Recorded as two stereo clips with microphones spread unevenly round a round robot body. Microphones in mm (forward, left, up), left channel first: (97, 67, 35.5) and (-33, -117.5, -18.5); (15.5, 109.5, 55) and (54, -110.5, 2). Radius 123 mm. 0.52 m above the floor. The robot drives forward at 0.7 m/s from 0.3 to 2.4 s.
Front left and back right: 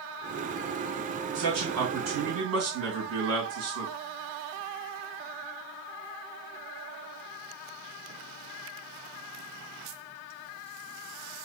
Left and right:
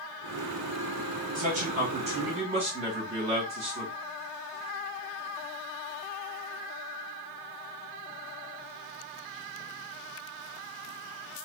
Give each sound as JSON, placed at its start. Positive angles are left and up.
{"t": 1.4, "sound": "a man speaking", "azimuth_deg": -130, "distance_m": 2.5}